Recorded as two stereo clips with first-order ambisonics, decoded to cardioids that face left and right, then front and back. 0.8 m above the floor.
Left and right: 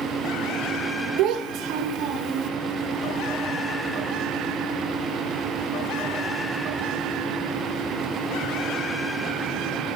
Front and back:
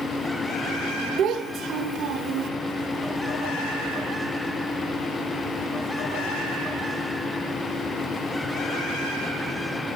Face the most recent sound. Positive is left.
turn(degrees=-125)